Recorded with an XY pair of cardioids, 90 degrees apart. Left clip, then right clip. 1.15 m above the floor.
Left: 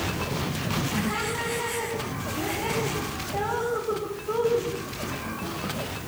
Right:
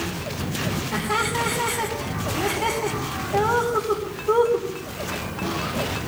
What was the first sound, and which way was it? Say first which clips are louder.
Laughter: right 9 dB; 70° right.